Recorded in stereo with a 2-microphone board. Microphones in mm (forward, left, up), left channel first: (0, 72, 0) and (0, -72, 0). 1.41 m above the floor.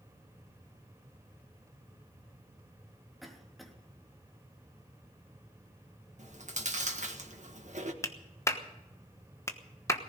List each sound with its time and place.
3.2 s a cough: centre (ahead or behind), 3 m
6.2 s chewing: 55° right (ahead or behind), 1.6 m
8.0 s a clap: 20° left (ahead or behind), 1.2 m